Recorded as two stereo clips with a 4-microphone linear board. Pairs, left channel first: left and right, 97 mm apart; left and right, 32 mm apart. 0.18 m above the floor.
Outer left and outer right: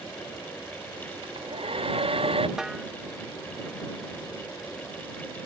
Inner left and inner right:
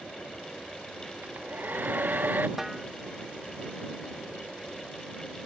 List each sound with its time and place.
1.2 s a hair dryer: 70° right (ahead or behind)
2.6 s a snare drum: 5° right (ahead or behind)